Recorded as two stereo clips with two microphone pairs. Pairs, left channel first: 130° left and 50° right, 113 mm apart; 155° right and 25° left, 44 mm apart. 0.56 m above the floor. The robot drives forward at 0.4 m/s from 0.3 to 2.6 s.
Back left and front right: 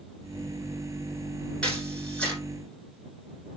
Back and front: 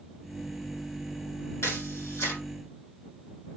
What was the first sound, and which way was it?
A camera shutter, 150° right.